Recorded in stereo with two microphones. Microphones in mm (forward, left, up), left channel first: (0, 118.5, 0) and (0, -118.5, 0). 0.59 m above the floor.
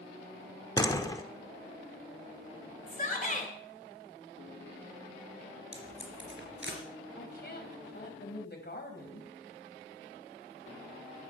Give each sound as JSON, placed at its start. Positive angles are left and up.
{"t": 0.8, "sound": "a door slam", "side_deg": 15, "distance_m": 1.1}
{"t": 2.9, "sound": "a shout", "side_deg": 35, "distance_m": 2.5}
{"t": 5.7, "sound": "tape being pulled", "side_deg": -60, "distance_m": 3.5}
{"t": 7.2, "sound": "a woman speaking", "side_deg": 45, "distance_m": 3.5}